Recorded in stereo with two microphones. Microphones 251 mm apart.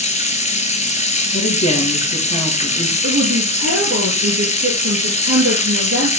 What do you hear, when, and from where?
0.0 s running water: 25° left (ahead or behind), 0.9 m
1.3 s a woman speaking: 25° left (ahead or behind), 2.5 m
3.0 s a woman speaking: 55° right (ahead or behind), 2.5 m